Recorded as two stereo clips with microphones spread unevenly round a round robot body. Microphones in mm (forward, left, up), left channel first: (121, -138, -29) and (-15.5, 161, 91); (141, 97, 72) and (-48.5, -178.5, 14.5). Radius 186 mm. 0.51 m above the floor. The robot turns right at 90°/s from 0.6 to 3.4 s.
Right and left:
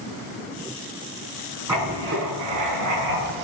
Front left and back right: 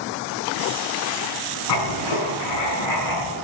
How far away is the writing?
About 6 m.